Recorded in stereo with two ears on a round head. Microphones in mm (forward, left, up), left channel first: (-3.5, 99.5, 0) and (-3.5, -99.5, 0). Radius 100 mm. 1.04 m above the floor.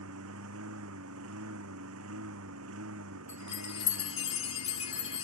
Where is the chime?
30° left (ahead or behind).